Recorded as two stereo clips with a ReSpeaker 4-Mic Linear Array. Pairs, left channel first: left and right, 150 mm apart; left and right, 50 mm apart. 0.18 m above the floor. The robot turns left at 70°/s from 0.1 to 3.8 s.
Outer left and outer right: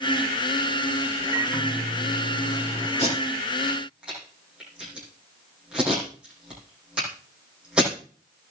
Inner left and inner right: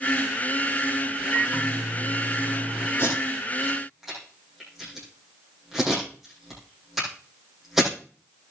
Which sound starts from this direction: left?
Tape being pulled, at 3.0 s.